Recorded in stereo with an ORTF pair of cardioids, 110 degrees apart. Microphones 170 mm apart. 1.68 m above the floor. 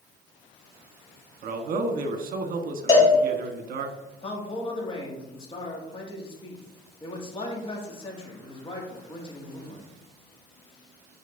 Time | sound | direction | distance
1.4 | a man speaking | 60° right | 1.2 m
2.9 | a cowbell | 20° left | 2 m
4.2 | a man speaking | 35° left | 1.9 m